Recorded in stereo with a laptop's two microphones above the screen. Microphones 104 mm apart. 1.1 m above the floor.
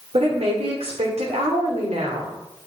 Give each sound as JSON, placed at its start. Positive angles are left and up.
{"t": 0.1, "sound": "a woman speaking", "side_deg": -75, "distance_m": 3.0}